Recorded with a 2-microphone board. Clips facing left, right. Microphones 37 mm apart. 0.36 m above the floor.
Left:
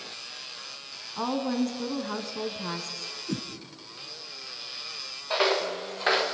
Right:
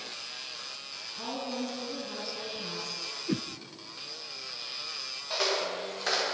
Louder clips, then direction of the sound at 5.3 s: Left 5 dB; 30° left (ahead or behind).